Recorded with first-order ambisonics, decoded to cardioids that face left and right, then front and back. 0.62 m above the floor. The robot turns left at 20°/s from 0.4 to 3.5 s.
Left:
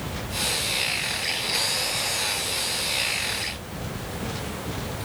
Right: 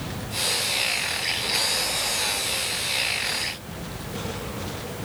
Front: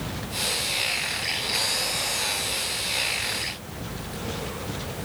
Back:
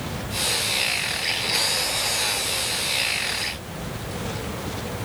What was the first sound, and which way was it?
Only background noise.